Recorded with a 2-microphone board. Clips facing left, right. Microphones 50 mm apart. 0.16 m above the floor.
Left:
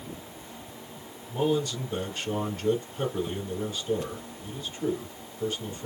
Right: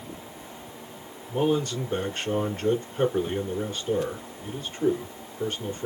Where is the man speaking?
45° right (ahead or behind), 2 m.